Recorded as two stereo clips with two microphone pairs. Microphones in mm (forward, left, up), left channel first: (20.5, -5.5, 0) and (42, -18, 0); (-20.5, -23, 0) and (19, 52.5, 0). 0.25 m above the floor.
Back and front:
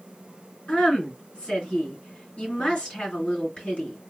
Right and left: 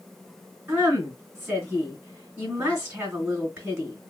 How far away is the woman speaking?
About 2 m.